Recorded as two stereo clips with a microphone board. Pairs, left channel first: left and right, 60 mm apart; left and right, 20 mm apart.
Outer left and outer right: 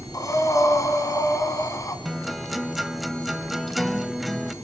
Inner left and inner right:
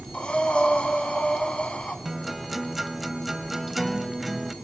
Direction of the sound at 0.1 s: 60° left (ahead or behind).